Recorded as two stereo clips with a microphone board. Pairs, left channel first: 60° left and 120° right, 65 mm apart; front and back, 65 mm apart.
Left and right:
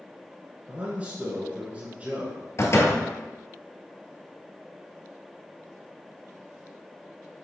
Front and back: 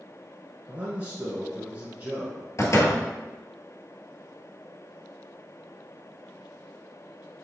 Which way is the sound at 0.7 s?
155° right.